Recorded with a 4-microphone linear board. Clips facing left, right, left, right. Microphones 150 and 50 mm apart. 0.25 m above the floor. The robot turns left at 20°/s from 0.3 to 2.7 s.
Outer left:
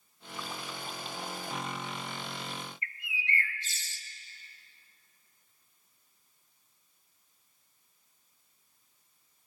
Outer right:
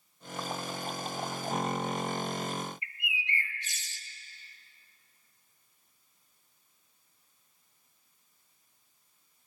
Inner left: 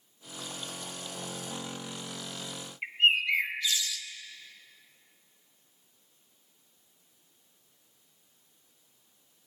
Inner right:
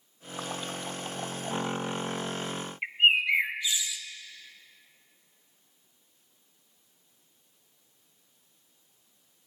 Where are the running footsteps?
I don't hear running footsteps.